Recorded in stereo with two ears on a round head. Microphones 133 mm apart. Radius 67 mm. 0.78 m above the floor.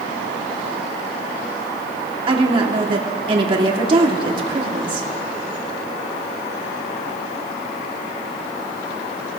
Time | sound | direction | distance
2.3 | a woman speaking | 35° right (ahead or behind) | 2.0 m